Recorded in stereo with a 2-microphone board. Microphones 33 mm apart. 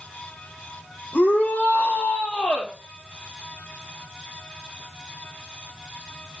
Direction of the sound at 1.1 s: 60° left (ahead or behind).